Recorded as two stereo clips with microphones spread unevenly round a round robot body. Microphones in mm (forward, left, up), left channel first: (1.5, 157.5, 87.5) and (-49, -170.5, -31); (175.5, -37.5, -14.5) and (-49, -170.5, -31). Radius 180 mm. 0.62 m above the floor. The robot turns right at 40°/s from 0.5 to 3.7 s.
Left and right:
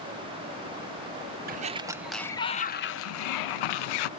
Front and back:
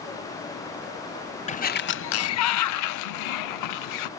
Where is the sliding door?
40° right, 0.5 m; by 4.1 s 50° left, 0.5 m.